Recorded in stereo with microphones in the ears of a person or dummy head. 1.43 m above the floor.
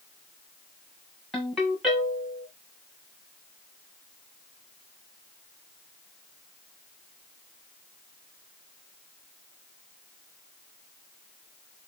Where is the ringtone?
Centre (ahead or behind), 1.1 m.